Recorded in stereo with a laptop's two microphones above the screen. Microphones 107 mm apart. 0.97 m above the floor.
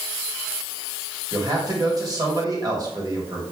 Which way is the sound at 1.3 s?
35° right (ahead or behind).